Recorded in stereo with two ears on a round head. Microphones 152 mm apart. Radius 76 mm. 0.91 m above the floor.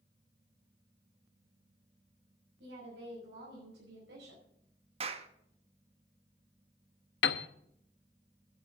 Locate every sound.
2.6 s a woman speaking: 80° right, 6.5 m; by 4.5 s 75° right (ahead or behind), 5 m
5.0 s a clap: 40° right (ahead or behind), 1.1 m
7.2 s a piano: 75° left (ahead or behind), 0.8 m